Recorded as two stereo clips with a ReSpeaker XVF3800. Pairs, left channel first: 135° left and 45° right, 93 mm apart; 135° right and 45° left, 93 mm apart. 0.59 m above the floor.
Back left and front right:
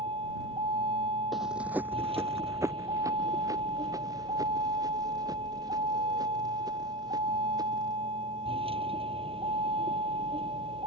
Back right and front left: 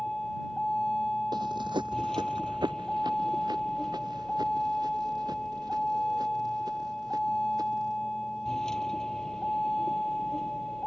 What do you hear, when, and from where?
0.0 s a vehicle: 50° right
1.3 s running footsteps: 45° left; by 8.0 s straight ahead